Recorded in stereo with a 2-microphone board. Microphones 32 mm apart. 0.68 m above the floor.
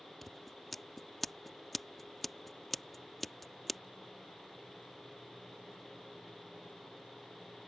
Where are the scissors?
5° left (ahead or behind).